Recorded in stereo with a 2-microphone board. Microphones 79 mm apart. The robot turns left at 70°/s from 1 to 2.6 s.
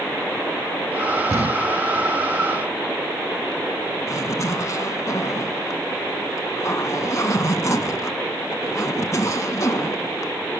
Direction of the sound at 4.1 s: 40° left (ahead or behind).